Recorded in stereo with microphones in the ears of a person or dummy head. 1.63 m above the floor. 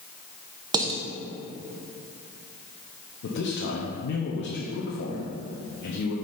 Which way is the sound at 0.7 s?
20° right (ahead or behind).